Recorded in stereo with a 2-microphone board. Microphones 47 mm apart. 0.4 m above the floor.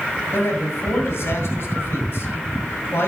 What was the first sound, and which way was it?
A man speaking, 65° left (ahead or behind).